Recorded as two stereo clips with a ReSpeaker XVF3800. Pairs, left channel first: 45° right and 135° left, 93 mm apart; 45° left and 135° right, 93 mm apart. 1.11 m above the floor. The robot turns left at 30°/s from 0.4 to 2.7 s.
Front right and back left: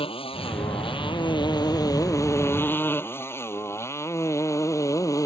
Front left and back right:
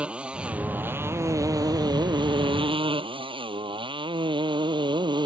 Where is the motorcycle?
55° right; by 5.3 s 100° right.